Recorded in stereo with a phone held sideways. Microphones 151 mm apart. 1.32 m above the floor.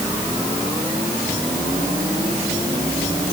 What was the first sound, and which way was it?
Only background noise.